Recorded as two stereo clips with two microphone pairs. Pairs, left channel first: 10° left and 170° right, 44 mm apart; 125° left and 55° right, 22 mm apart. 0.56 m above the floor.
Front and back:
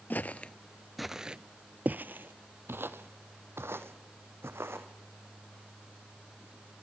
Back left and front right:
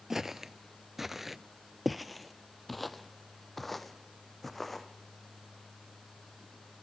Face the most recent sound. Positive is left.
turn(degrees=-150)